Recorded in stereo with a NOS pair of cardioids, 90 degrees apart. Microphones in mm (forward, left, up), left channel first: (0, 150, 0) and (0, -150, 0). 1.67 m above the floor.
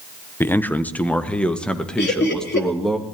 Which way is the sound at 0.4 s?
5° left.